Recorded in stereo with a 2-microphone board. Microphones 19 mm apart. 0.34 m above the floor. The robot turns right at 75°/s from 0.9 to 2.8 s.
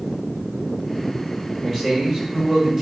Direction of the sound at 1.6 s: 5° right (ahead or behind).